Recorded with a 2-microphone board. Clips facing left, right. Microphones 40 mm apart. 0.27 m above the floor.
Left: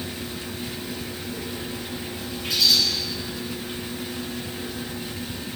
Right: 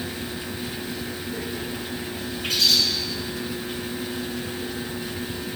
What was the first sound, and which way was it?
A bird, 65° right (ahead or behind).